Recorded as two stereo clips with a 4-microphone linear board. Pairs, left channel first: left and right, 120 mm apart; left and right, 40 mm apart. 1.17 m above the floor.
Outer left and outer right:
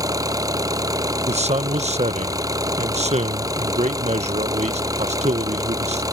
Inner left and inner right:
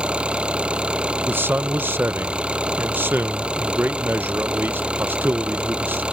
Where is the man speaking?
65° right (ahead or behind).